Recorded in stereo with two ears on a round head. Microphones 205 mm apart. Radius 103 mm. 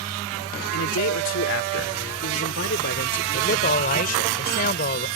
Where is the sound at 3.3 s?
40° left (ahead or behind).